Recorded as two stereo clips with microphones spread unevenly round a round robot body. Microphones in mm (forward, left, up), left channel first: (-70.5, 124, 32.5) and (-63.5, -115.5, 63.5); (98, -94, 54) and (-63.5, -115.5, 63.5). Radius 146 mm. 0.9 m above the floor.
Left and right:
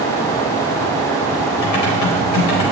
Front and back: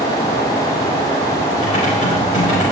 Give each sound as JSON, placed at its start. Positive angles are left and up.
{"t": 1.6, "sound": "typing on a keyboard", "azimuth_deg": 75, "distance_m": 4.5}